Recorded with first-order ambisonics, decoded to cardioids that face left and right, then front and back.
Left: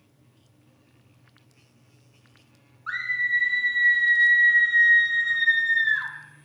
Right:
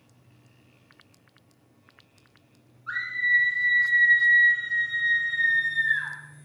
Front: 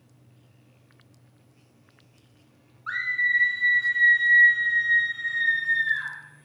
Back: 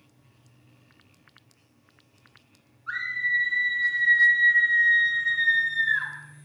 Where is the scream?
40° left, 1.7 m; by 6.1 s 105° left, 1.9 m.